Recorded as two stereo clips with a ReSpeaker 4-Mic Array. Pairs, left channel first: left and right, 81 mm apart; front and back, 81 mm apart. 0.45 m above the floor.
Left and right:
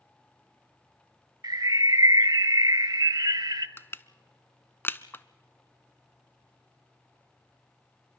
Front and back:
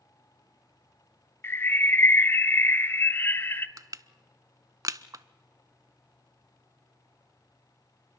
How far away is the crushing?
About 0.6 m.